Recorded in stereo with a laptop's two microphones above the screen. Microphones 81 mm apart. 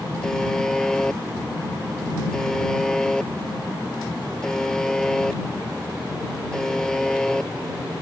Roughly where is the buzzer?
Centre.